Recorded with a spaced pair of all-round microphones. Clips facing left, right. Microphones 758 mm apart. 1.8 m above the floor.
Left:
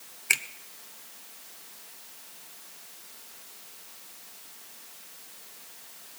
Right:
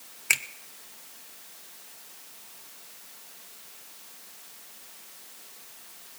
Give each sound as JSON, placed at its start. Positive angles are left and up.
{"t": 0.3, "sound": "a finger snap", "side_deg": -20, "distance_m": 0.6}